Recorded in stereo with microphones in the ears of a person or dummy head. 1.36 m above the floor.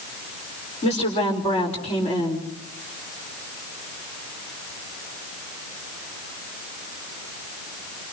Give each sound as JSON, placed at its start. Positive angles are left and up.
{"t": 0.8, "sound": "a woman speaking", "side_deg": 35, "distance_m": 5.0}